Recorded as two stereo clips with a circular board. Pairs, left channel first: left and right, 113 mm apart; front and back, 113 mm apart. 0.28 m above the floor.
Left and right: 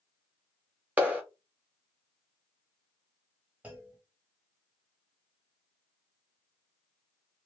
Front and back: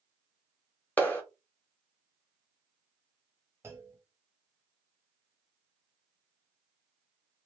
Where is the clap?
40° right, 0.9 m.